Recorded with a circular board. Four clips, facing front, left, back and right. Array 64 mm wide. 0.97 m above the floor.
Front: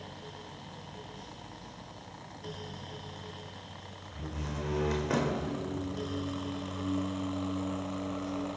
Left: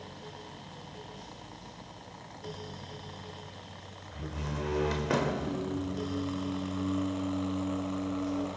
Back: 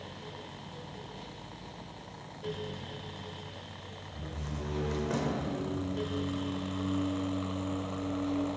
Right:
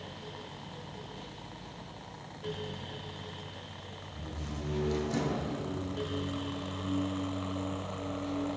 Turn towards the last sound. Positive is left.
turn(degrees=125)